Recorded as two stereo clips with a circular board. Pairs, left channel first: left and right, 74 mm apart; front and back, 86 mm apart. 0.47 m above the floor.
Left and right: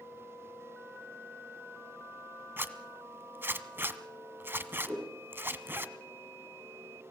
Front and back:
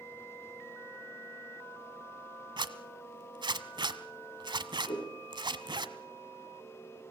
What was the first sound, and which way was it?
A zipper, 150° right.